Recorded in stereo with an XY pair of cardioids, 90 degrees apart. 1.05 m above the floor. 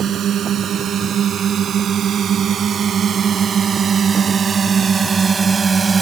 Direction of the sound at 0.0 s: 65° right.